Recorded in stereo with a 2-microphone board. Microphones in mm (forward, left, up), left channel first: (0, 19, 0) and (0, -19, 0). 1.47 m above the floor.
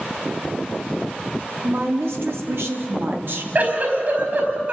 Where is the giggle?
50° right (ahead or behind), 4.5 m.